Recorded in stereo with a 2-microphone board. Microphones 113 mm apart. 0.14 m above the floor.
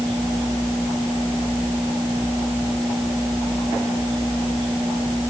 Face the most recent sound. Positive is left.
No sound to turn to.